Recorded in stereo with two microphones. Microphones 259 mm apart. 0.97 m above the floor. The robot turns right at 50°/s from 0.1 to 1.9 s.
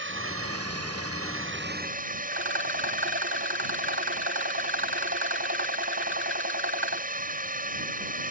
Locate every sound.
0.0 s a drone: 125° right; by 8.3 s 35° right
2.3 s a rattle: 50° right (ahead or behind)